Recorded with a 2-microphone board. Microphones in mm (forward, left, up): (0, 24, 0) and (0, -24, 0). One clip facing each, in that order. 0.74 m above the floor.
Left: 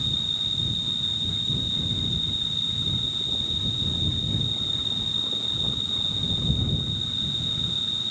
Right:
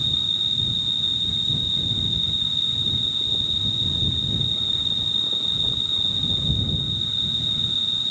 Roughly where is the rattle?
No rattle in this recording.